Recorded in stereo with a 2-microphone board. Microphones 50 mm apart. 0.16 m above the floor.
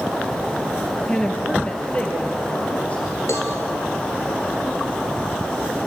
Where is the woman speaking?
15° left (ahead or behind), 3 m; by 3.0 s 25° left (ahead or behind), 4 m.